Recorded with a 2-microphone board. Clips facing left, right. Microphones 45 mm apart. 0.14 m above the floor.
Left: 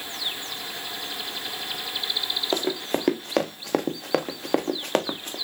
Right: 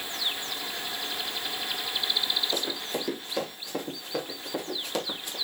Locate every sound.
2.5 s running footsteps: 50° left (ahead or behind), 1.6 m; by 5.3 s 40° left (ahead or behind), 1.2 m